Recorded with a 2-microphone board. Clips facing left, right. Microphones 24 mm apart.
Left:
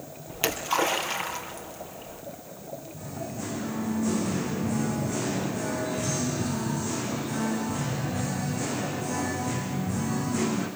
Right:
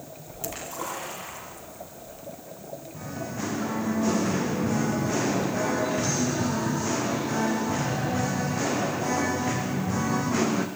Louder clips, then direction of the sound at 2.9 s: Right 4 dB; 45° right (ahead or behind).